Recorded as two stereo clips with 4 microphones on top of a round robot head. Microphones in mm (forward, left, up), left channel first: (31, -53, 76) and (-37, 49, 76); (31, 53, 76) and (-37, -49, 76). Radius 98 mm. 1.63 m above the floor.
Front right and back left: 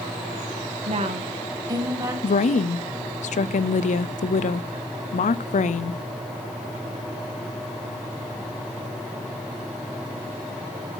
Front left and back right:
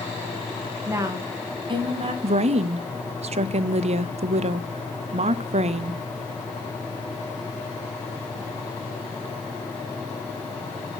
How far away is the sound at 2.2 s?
About 0.6 m.